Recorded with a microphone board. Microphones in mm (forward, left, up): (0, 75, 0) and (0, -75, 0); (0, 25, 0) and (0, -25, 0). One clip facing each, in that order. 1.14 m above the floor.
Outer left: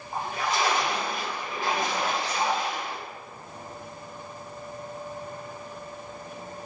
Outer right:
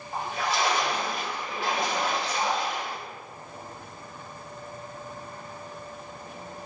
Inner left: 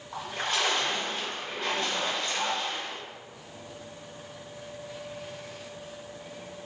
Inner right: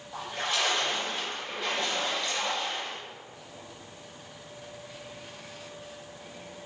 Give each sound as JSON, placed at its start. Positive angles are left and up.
{"t": 0.1, "sound": "a splash", "side_deg": 45, "distance_m": 1.4}